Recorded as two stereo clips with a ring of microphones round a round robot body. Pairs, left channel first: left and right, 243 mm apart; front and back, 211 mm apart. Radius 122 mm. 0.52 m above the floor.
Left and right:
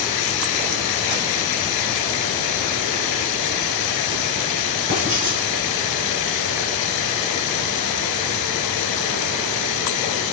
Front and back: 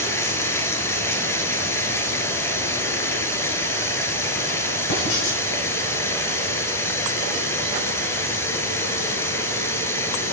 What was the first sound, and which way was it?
Running water, 80° left.